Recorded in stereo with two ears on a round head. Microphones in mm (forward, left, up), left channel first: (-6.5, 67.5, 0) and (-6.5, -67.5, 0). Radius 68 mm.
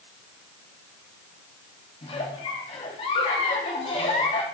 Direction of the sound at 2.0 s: 40° left (ahead or behind).